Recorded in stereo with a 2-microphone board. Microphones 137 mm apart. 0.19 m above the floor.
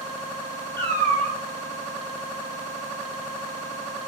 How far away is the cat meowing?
About 2 m.